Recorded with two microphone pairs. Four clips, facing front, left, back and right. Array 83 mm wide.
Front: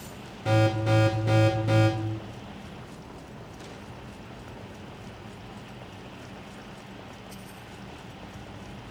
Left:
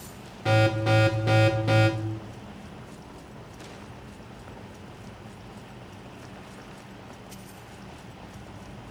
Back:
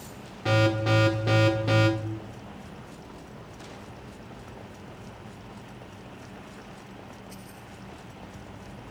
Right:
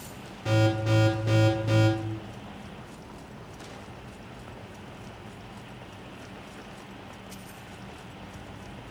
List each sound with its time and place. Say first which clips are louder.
0.5 s an alarm: left 3 dB, even; 150° left, 2 m